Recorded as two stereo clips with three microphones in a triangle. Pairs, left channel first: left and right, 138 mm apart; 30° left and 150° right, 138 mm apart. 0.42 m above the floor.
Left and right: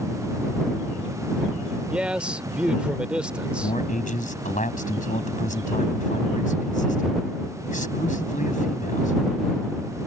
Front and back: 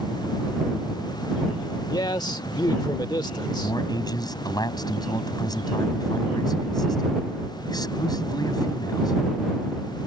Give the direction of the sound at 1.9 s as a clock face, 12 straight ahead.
12 o'clock.